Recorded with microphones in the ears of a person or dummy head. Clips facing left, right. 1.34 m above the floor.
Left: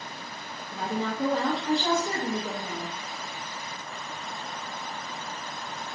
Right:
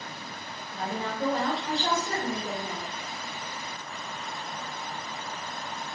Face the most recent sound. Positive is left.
turn(degrees=65)  # may be behind; listen again after turning